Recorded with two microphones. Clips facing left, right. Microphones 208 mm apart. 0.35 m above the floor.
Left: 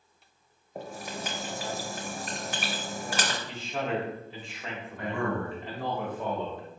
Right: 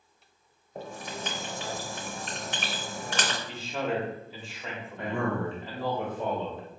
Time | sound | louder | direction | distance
0.8 | writing | even | 10° left (ahead or behind) | 0.8 m
3.5 | a man speaking | right 2 dB | 5° right (ahead or behind) | 0.9 m
5.0 | a man speaking | right 1 dB | 25° right (ahead or behind) | 0.8 m